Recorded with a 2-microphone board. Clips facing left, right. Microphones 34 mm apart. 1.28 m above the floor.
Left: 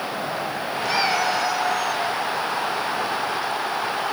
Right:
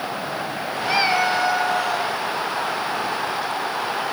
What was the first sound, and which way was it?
A cat meowing, 25° right (ahead or behind).